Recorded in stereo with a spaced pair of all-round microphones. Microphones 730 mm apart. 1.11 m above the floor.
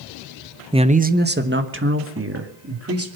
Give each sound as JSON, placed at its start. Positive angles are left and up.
{"t": 0.7, "sound": "a man speaking", "side_deg": -5, "distance_m": 0.7}